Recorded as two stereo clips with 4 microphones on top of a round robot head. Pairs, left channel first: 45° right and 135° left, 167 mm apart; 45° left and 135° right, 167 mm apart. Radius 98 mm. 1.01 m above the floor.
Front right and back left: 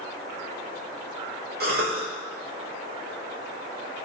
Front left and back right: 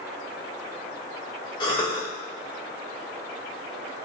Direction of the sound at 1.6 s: 110° left.